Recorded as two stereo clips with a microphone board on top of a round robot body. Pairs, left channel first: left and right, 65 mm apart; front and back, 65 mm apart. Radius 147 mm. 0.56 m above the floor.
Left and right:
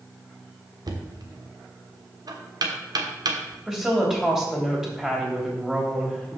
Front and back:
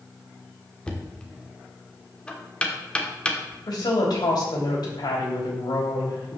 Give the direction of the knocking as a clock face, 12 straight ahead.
3 o'clock.